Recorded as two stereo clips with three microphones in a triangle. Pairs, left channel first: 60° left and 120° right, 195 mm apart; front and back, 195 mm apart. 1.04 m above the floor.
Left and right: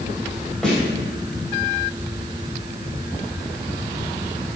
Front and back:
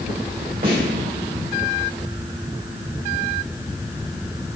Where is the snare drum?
145° left, 3 m.